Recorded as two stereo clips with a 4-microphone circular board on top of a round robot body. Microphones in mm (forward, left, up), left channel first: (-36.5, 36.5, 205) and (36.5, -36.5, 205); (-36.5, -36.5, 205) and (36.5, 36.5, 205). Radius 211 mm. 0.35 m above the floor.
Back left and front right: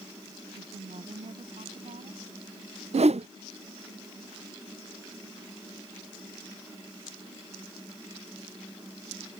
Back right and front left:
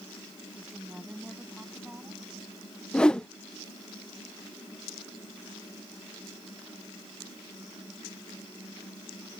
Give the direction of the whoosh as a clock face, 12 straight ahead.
2 o'clock.